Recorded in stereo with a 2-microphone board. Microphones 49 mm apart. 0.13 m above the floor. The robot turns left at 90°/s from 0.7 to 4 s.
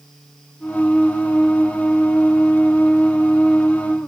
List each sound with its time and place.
Only background noise.